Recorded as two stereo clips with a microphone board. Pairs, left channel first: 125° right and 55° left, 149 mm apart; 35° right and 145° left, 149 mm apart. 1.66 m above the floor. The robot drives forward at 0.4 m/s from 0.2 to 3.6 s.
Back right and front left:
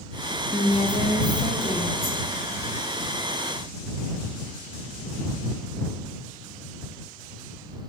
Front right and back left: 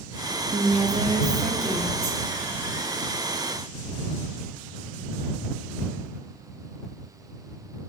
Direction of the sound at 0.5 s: 170° right.